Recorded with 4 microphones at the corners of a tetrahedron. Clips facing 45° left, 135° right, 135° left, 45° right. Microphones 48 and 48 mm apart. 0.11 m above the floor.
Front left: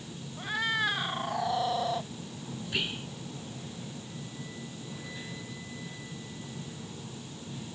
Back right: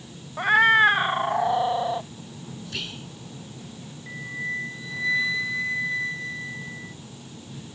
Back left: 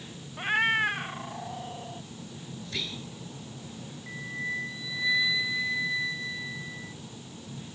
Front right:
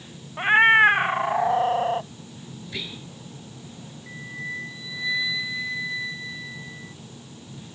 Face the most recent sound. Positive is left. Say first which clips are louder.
# back right 12 dB, even
turn(degrees=-135)